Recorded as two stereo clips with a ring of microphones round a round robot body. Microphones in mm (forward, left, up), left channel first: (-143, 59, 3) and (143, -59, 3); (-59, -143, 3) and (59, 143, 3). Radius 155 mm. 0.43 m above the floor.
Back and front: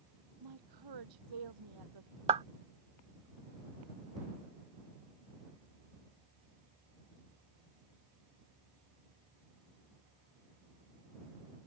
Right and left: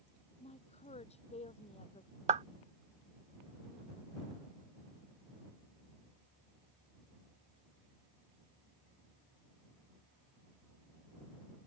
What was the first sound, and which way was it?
A woman speaking, 40° right.